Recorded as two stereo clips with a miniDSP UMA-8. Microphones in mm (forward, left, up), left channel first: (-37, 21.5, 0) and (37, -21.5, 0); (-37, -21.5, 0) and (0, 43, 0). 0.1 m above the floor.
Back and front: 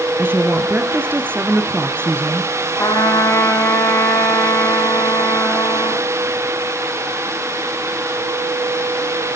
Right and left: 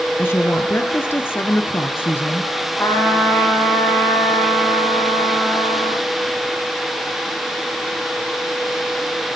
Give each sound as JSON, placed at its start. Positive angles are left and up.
{"t": 0.2, "sound": "a woman speaking", "azimuth_deg": -80, "distance_m": 1.8}
{"t": 2.8, "sound": "a trumpet", "azimuth_deg": -170, "distance_m": 4.5}